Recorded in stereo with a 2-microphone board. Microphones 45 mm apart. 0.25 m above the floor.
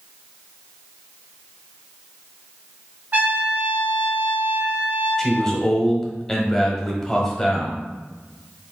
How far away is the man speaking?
About 0.9 m.